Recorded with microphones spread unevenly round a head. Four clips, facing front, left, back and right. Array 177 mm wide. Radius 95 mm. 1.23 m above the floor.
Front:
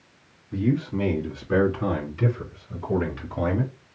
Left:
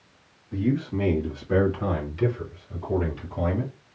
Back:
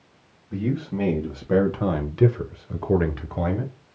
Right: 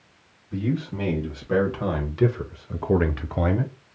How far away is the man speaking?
About 1.6 m.